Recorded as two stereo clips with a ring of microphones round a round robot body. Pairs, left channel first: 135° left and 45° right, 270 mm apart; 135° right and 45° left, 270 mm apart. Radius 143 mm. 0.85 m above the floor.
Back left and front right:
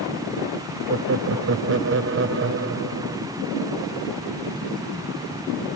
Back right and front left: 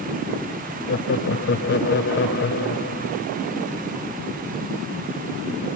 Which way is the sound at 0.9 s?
85° right.